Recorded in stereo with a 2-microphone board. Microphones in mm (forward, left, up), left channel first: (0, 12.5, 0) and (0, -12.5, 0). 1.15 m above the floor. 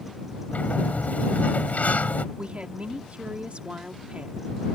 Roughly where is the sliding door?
Left.